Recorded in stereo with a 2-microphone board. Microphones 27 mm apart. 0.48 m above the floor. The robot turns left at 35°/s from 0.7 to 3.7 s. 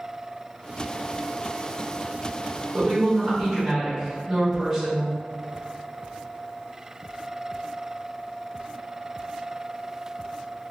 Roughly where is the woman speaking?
Behind right.